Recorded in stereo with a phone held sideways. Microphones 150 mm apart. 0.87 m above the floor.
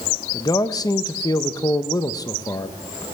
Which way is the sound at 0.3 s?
25° left (ahead or behind).